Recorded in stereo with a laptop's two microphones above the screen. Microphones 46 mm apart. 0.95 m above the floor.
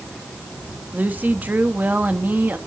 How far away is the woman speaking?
About 1.3 m.